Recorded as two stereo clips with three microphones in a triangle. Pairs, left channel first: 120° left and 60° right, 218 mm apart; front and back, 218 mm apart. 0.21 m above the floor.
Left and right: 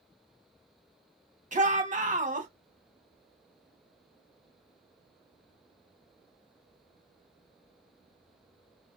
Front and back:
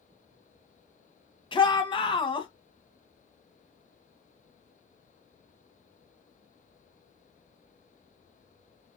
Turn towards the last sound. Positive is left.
turn(degrees=-50)